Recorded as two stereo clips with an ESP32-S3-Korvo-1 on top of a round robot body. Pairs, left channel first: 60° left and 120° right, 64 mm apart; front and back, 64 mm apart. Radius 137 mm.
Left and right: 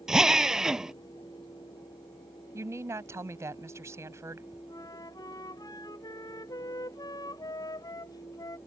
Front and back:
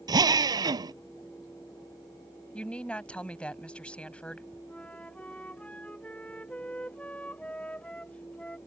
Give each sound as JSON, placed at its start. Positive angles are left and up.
{"t": 0.1, "sound": "a drill", "azimuth_deg": 160}
{"t": 2.5, "sound": "a woman speaking", "azimuth_deg": -75}
{"t": 4.7, "sound": "a flute", "azimuth_deg": 70}